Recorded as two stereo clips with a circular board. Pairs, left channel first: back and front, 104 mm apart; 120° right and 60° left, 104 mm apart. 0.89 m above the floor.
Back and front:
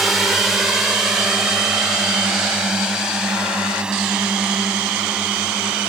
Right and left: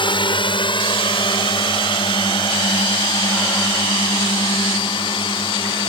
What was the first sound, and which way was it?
A drone, 90° right.